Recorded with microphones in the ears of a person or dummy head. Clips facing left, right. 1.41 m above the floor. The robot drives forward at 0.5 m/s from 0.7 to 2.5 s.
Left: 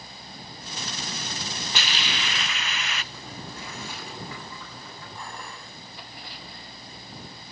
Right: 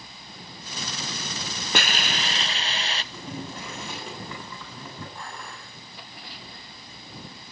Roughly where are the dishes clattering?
Centre.